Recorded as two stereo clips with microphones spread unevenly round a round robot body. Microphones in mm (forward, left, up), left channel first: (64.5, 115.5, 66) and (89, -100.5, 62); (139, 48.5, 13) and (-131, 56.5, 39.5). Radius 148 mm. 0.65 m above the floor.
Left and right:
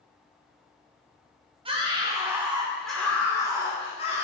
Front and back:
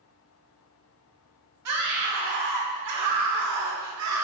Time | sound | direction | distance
1.6 | a scream | 150° right | 2.5 m